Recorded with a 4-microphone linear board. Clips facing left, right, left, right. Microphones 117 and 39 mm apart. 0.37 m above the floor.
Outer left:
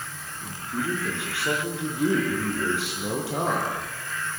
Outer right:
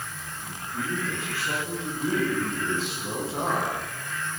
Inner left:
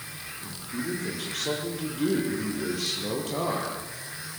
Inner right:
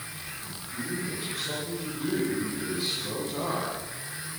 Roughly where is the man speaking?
Left.